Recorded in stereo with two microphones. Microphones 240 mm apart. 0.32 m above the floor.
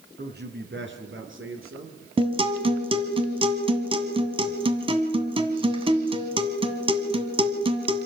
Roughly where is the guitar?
Right.